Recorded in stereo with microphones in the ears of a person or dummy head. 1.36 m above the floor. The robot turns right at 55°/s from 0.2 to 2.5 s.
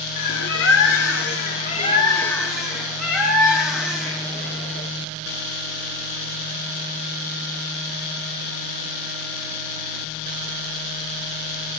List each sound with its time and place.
0.2 s a bird: 55° left, 1.1 m; by 4.9 s straight behind, 1.1 m